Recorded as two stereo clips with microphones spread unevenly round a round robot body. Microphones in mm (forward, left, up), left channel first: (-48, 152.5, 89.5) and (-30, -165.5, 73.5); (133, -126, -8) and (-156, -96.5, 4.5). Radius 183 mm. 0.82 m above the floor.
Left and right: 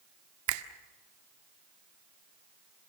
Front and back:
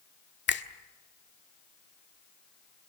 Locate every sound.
0.5 s a finger snap: 55° right, 1.7 m